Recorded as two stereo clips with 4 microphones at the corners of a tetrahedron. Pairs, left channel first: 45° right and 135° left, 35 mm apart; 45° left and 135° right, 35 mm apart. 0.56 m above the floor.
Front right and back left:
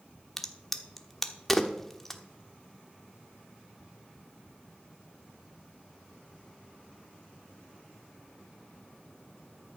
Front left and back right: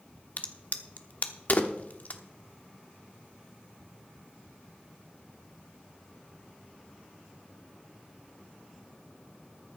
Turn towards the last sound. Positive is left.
turn(degrees=35)